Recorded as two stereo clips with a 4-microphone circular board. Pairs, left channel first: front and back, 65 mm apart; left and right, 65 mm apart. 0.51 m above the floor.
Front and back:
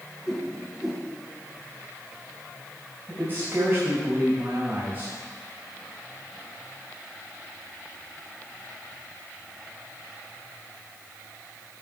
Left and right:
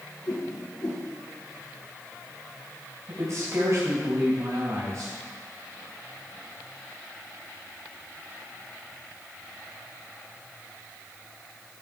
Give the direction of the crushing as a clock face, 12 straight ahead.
No crushing in this recording.